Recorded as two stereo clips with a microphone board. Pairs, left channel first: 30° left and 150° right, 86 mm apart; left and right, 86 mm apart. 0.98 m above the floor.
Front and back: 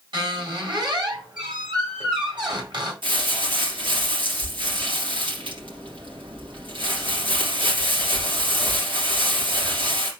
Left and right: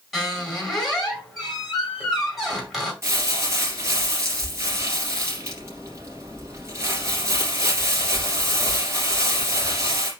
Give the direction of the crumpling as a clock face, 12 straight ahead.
5 o'clock.